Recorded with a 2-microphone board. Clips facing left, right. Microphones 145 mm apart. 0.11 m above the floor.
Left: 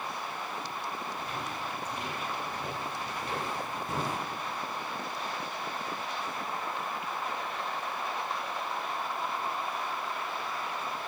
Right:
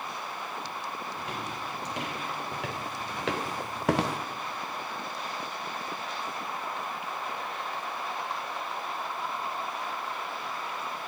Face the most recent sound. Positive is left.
turn(degrees=-60)  # may be behind; listen again after turning